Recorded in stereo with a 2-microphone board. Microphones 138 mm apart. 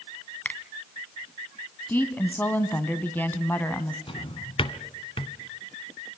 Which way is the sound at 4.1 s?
45° left (ahead or behind).